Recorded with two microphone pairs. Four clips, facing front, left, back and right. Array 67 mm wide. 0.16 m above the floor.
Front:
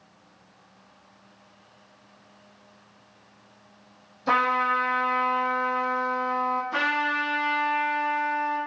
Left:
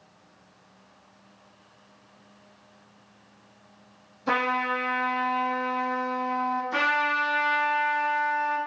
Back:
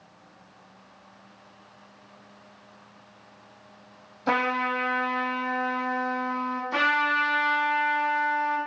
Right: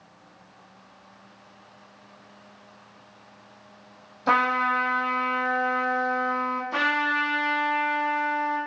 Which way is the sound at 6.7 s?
170° right.